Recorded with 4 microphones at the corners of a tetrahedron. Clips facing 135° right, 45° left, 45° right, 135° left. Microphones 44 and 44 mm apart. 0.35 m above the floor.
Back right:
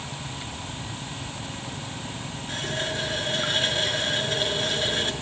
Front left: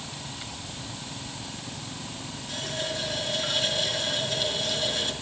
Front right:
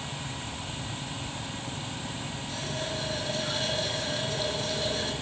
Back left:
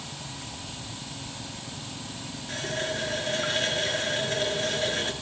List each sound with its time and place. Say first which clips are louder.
2.5 s a running tap: back right 3 dB, back left 5 dB; 175° left, 4 m